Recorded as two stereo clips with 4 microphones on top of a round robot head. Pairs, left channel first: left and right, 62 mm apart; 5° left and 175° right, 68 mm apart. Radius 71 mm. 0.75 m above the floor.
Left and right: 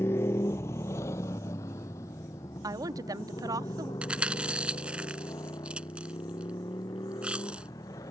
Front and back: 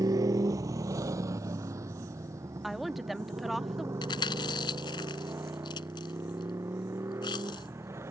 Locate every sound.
0.0 s a motorcycle: 150° left; by 8.1 s 135° left
2.6 s a woman speaking: 85° right
4.0 s chewing: 15° right